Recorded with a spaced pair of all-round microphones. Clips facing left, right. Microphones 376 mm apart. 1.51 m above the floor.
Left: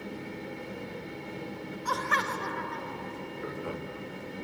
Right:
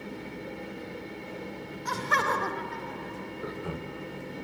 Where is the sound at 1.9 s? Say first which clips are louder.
Right 4 dB; 30° right (ahead or behind), 0.9 m; by 3.5 s 15° right (ahead or behind), 1.9 m.